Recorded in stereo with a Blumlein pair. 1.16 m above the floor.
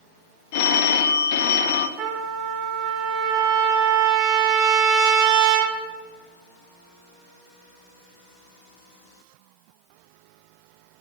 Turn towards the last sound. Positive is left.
turn(degrees=-35)